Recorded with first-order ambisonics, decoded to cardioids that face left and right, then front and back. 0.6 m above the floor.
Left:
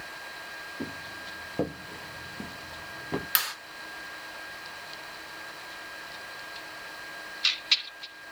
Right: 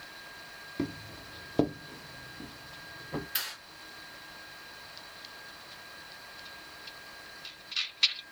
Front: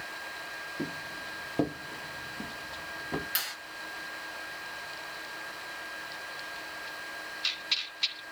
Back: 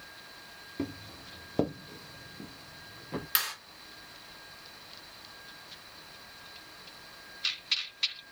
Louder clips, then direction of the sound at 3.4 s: Left 7 dB, back 5 dB; 120° left.